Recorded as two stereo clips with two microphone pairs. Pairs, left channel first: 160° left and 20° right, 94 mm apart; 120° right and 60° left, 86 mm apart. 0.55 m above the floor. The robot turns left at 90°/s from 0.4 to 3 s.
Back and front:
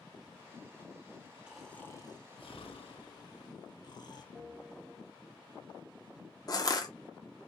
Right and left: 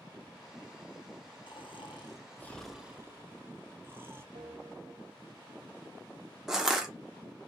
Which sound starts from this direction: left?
A bell, at 4.3 s.